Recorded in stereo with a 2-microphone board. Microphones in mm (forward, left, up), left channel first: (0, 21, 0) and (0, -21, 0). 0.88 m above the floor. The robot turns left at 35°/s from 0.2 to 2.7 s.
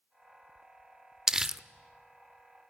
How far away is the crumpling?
About 0.5 m.